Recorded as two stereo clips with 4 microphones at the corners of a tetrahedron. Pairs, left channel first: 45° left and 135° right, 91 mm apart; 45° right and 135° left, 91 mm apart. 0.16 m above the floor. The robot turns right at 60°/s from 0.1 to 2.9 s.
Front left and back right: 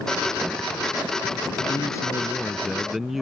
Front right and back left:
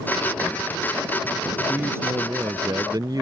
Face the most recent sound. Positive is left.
turn(degrees=140)